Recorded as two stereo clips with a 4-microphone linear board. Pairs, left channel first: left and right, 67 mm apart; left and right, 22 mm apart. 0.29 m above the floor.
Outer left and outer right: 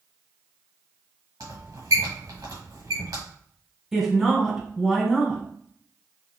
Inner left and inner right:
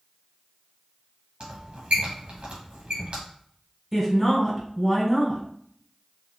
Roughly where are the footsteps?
I don't hear footsteps.